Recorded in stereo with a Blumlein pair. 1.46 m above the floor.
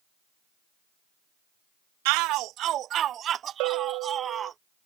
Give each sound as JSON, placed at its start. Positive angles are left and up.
{"t": 2.0, "sound": "a shout", "azimuth_deg": -45}
{"t": 3.6, "sound": "a bell", "azimuth_deg": -45}